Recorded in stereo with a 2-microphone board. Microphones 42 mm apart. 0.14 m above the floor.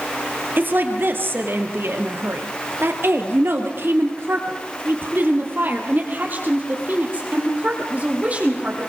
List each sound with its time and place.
0.6 s a woman speaking: 50° right (ahead or behind), 3 m; by 8.9 s 35° right (ahead or behind), 5 m